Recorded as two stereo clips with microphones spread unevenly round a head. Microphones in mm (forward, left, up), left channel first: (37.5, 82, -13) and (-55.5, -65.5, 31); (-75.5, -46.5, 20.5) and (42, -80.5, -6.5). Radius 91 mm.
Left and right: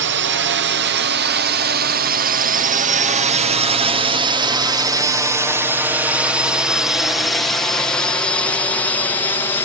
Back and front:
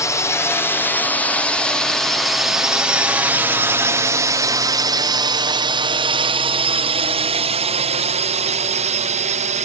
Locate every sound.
0.0 s a drone: 125° right; by 9.7 s 10° right